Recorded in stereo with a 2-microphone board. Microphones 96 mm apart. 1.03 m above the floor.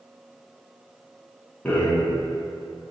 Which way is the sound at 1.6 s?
15° left (ahead or behind).